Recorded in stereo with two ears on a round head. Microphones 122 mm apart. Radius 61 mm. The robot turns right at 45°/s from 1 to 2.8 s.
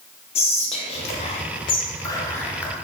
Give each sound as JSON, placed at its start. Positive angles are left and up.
{"t": 0.3, "sound": "whispering", "side_deg": 50, "distance_m": 0.5}